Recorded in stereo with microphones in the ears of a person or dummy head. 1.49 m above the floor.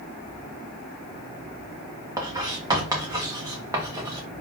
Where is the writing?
20° right (ahead or behind), 1.5 m.